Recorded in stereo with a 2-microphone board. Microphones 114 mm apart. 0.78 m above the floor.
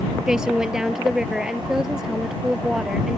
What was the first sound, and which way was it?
A woman speaking, 5° right (ahead or behind).